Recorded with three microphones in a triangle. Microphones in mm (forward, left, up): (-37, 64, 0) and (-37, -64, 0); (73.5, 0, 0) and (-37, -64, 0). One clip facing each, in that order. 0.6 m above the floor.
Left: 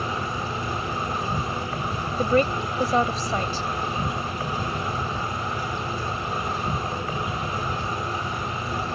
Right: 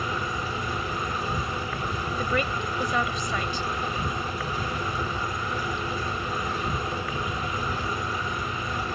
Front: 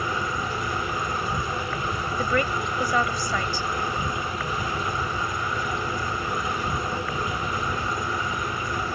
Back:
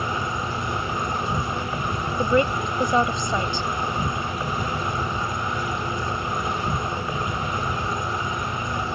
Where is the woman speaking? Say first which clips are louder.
Left 8 dB, back 5 dB; 145° left.